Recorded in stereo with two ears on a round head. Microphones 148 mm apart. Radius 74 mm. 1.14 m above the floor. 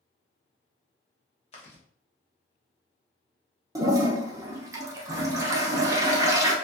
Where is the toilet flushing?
20° right (ahead or behind), 0.5 m.